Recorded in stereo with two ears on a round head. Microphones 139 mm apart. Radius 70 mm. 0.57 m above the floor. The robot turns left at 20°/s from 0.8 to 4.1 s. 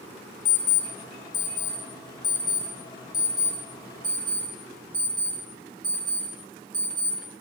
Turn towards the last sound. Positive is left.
turn(degrees=10)  # may be behind; listen again after turning